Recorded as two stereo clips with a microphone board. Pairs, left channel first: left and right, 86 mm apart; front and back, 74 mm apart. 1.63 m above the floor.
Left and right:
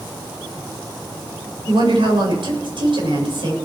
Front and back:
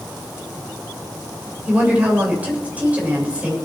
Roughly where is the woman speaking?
Right.